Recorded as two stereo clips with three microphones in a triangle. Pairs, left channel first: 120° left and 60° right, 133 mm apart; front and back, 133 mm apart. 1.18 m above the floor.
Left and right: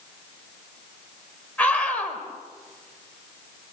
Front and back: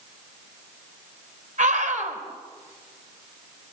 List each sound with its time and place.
1.6 s a scream: 160° right, 4.5 m